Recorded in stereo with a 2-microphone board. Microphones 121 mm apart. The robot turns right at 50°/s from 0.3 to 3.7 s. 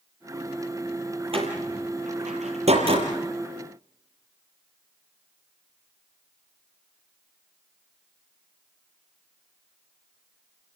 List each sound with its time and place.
1.3 s a door slam: 50° right (ahead or behind), 5.5 m; by 3.1 s 40° right (ahead or behind), 5.5 m